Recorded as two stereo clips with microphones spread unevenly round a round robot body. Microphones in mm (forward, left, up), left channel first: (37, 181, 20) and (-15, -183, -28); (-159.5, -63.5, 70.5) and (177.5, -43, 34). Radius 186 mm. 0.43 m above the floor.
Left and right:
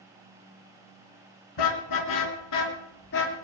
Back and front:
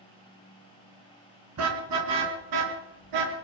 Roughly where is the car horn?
Ahead left.